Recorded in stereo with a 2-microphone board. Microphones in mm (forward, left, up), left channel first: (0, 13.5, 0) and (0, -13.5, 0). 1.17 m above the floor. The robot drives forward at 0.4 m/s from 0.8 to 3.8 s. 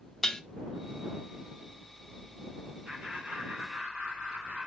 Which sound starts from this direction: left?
Dishes clattering, at 0.2 s.